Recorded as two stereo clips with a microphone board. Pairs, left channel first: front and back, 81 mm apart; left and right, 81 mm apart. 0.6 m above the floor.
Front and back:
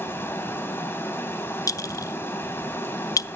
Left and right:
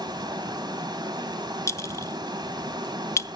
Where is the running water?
65° right, 3.5 m.